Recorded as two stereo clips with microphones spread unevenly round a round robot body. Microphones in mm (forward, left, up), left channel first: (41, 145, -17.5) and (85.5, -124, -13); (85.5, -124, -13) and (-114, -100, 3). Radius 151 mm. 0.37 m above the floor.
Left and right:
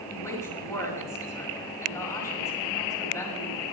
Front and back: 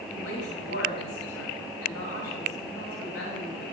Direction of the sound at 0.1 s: 20° left.